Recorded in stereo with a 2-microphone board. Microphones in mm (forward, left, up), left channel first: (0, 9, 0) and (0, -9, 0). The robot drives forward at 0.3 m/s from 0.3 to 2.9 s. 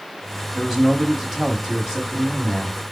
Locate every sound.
0.6 s a man speaking: 25° right (ahead or behind), 1.2 m; by 2.8 s 20° right (ahead or behind), 1.5 m